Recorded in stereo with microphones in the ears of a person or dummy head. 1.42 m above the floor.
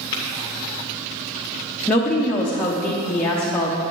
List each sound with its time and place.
0.1 s tapping: 25° left (ahead or behind), 1.1 m
1.9 s a woman speaking: 5° left (ahead or behind), 0.7 m